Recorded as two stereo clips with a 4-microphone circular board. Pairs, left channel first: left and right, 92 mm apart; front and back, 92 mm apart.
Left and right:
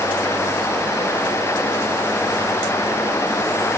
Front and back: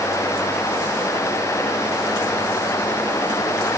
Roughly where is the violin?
I don't hear a violin.